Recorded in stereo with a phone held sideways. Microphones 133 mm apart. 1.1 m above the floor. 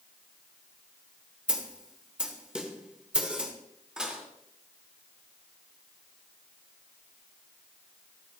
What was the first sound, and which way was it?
A snare drum, 10° right (ahead or behind).